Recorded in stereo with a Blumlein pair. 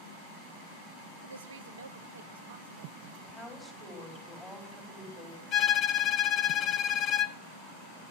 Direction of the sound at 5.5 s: 35° left.